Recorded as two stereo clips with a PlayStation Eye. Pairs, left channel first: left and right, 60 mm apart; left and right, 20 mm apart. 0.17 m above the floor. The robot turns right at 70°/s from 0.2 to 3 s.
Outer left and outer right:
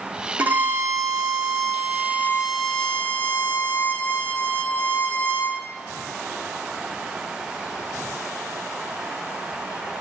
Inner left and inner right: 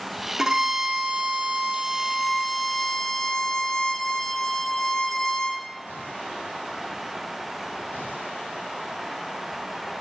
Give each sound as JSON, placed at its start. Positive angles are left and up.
{"t": 0.4, "sound": "a violin", "azimuth_deg": -160, "distance_m": 1.5}